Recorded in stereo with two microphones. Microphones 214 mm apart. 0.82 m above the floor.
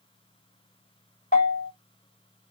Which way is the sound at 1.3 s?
40° left (ahead or behind).